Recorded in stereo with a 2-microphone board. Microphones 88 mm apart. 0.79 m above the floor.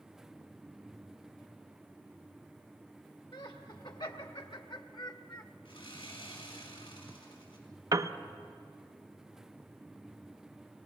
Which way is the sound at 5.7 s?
80° left.